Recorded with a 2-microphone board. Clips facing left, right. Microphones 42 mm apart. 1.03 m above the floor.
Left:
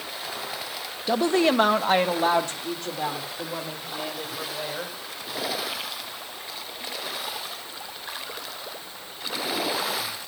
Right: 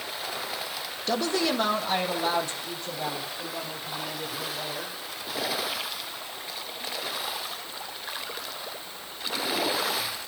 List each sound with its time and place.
1.1 s a woman speaking: 10° left (ahead or behind), 0.8 m; by 5.0 s 70° left (ahead or behind), 6.5 m